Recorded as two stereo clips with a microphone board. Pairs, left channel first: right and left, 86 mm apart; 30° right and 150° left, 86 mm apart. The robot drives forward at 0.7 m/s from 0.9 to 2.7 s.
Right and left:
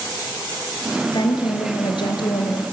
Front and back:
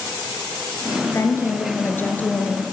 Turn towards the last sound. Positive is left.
turn(degrees=-105)